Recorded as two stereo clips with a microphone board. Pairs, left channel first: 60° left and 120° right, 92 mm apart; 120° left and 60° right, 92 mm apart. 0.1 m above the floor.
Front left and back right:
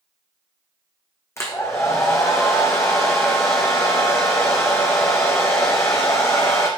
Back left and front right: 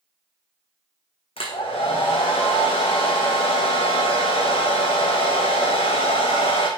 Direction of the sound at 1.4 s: 120° left.